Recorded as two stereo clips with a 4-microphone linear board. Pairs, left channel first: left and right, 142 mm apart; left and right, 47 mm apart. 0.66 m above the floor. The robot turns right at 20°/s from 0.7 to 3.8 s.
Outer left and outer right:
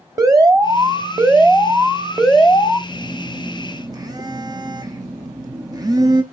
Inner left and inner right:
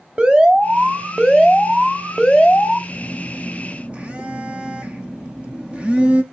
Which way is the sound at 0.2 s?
30° right.